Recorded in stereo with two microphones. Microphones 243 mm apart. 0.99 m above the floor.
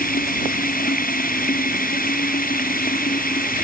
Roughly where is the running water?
Left.